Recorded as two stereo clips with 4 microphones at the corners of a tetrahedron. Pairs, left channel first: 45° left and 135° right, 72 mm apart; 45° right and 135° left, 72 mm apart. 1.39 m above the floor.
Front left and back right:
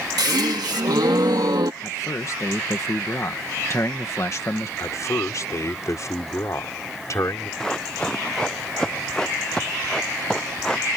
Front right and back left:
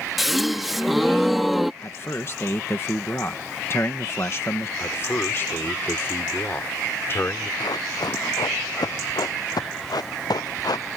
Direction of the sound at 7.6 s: 35° right.